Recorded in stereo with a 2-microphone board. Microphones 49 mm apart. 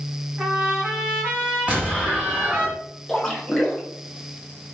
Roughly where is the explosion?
Right.